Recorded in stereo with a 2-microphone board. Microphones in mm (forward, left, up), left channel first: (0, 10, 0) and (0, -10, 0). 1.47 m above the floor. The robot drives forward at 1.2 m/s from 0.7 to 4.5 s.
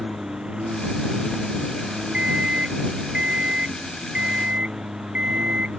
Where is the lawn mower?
65° right (ahead or behind); by 5.8 s 60° right (ahead or behind).